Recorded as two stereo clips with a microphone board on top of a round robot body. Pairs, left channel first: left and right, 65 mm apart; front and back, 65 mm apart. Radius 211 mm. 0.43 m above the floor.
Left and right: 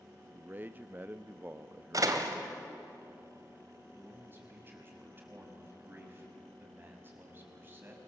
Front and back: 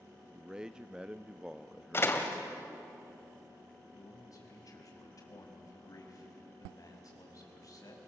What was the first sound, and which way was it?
A man speaking, 115° right.